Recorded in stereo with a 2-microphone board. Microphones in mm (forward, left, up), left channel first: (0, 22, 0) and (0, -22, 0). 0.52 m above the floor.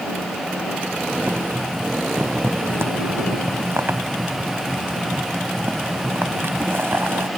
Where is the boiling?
65° right (ahead or behind).